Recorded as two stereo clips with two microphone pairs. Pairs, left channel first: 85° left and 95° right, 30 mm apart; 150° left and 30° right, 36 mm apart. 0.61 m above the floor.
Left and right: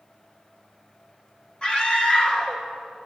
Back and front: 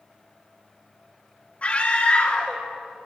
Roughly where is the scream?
Behind left.